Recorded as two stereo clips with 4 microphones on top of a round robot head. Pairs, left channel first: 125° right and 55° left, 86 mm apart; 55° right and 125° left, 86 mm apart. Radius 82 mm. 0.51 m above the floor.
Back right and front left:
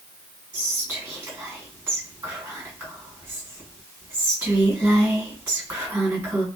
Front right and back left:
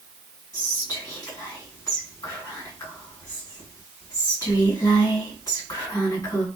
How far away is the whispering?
About 1.9 m.